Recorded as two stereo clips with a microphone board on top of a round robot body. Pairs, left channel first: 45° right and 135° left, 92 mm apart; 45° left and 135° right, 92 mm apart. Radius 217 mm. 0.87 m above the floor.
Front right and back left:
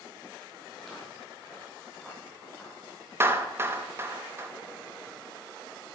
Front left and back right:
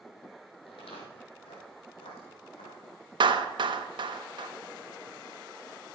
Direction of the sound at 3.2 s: 165° right.